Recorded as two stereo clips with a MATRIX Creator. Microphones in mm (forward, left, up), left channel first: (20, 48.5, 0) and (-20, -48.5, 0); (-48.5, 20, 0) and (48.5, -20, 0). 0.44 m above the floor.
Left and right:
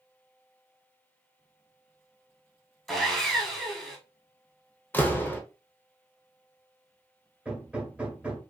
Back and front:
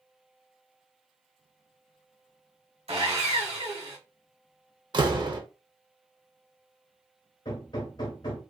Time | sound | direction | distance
2.9 | sawing | 20° right | 0.9 m
4.9 | a door slam | straight ahead | 0.6 m
7.5 | hammering | 175° left | 0.9 m